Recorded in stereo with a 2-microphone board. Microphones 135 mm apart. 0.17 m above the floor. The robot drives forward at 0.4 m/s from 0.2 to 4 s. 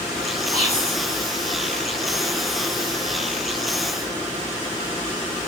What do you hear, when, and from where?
0.5 s whispering: 55° left (ahead or behind), 9 m; by 1.0 s 50° left (ahead or behind), 9 m